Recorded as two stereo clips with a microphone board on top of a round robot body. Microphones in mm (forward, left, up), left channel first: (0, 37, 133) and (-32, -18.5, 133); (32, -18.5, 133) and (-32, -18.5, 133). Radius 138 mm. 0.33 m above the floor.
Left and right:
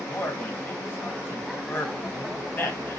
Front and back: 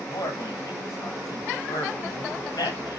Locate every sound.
0.1 s a man speaking: straight ahead, 3 m